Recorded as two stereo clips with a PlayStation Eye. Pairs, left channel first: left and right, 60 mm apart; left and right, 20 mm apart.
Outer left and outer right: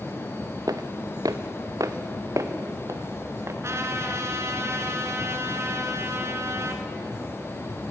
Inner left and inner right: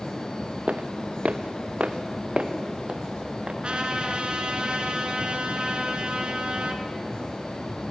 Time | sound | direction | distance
0.7 | footsteps | 80° right | 1.2 m
3.6 | a trumpet | 50° right (ahead or behind) | 2.5 m